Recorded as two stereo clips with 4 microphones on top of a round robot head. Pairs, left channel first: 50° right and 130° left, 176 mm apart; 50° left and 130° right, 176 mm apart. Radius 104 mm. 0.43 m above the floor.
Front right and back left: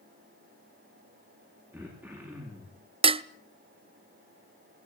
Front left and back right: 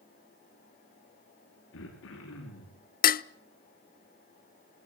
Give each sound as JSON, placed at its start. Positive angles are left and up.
{"t": 1.7, "sound": "throat clearing", "azimuth_deg": 50, "distance_m": 8.5}
{"t": 3.0, "sound": "dishes clattering", "azimuth_deg": 75, "distance_m": 0.9}